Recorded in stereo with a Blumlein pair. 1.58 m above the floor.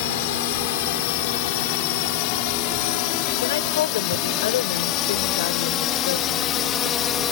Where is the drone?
50° left; by 7.3 s 25° left.